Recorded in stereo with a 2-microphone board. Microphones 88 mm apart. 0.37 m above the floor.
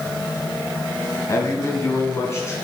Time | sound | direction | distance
1.3 | a man speaking | 35° left (ahead or behind) | 2.5 m